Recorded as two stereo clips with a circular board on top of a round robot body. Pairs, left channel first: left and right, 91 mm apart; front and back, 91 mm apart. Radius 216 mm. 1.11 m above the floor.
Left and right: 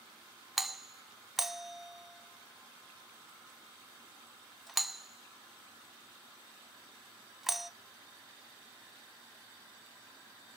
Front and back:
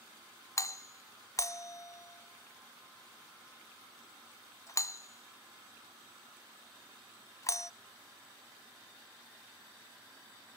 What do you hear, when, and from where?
0.6 s a doorbell: 5° right, 0.5 m